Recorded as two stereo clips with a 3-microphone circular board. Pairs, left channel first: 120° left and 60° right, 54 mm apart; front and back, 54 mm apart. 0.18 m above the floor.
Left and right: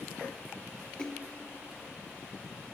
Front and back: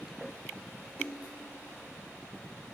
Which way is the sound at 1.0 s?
55° left.